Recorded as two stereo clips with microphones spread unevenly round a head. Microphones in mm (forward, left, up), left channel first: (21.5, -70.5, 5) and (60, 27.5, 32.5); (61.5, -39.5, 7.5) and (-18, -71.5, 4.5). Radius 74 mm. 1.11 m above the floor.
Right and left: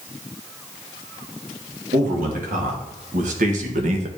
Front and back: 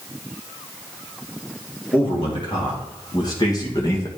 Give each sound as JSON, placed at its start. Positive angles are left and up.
{"t": 1.9, "sound": "a man speaking", "azimuth_deg": 75, "distance_m": 2.5}